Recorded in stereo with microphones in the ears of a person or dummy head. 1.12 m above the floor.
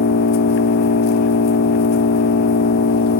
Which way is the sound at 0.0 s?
55° left (ahead or behind).